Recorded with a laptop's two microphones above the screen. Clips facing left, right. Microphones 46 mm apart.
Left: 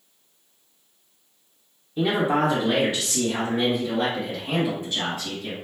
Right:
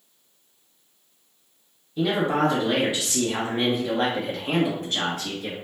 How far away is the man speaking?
About 0.9 m.